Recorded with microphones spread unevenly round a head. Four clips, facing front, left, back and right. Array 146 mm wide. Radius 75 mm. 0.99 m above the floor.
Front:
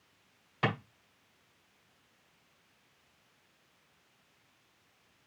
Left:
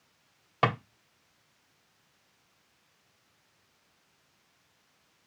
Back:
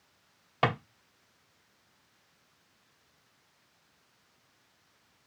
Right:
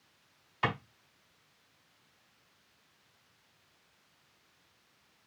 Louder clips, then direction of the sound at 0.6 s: Left 6 dB, back 4 dB; 125° left.